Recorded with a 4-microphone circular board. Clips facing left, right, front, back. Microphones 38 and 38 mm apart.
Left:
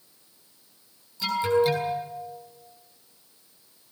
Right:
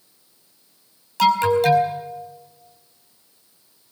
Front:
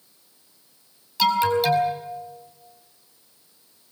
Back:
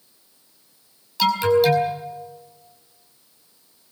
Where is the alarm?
85° right, 5.5 m.